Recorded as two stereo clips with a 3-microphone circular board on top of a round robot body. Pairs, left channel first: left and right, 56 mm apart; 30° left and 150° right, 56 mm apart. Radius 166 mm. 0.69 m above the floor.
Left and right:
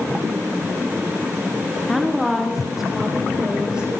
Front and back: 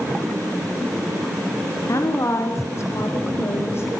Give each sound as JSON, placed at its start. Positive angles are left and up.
{"t": 1.9, "sound": "a woman speaking", "azimuth_deg": 5, "distance_m": 3.0}